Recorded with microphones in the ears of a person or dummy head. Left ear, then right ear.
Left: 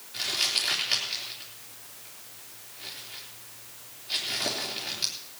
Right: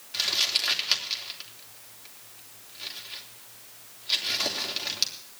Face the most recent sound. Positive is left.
turn(degrees=-55)  # may be behind; listen again after turning